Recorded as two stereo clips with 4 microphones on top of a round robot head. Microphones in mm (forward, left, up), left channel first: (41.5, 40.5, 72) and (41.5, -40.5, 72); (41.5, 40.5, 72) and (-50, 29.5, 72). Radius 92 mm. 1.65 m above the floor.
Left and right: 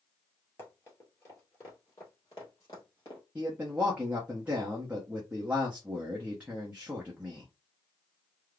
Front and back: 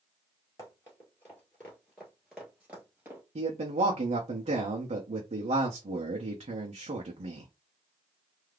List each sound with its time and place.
0.6 s running footsteps: 45° left, 1.9 m; by 3.2 s 140° left, 1.8 m
3.4 s a man speaking: 165° right, 0.7 m